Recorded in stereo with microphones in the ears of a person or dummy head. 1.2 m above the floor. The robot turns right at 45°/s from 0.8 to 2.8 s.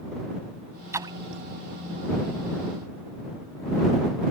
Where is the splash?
20° right (ahead or behind); by 1.4 s 45° right (ahead or behind).